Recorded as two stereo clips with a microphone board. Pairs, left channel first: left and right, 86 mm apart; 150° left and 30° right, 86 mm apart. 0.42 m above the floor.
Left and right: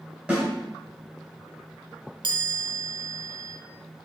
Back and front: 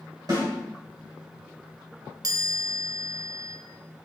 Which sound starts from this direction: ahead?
A snare drum, at 0.3 s.